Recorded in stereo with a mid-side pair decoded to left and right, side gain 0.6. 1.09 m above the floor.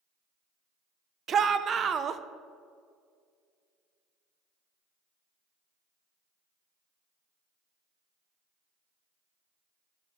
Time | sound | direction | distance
1.3 | a shout | 40° right | 0.6 m